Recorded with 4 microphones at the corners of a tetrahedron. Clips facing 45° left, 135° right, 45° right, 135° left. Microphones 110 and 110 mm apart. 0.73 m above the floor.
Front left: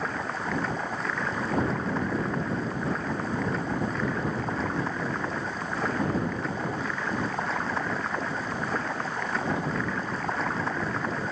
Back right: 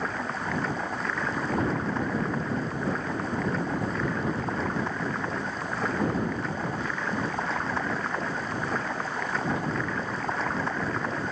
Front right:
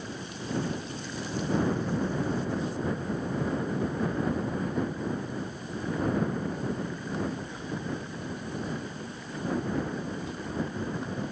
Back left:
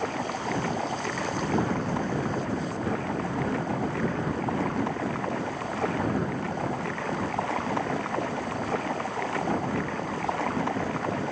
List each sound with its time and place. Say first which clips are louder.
0.0 s running water: even, back left 9 dB; 135° left